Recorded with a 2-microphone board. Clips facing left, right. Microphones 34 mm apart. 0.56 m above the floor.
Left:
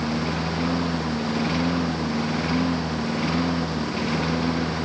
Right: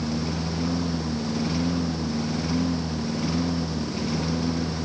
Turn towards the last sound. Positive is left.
turn(degrees=35)  # may be behind; listen again after turning